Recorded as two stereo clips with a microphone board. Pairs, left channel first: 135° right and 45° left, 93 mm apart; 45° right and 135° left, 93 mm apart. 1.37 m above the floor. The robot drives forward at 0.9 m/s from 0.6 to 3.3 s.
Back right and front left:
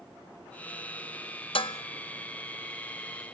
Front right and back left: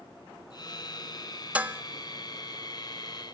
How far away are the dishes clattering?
About 1.0 m.